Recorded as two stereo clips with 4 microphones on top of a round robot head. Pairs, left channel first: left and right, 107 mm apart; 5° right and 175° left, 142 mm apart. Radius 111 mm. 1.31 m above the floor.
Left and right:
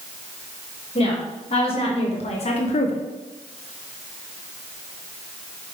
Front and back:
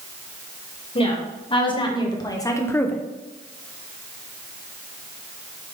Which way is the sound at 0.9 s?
45° left.